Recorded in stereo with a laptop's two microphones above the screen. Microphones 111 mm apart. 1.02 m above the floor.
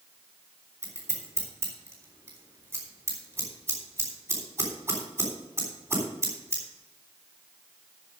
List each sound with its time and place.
0.8 s scissors: 25° right (ahead or behind), 3.5 m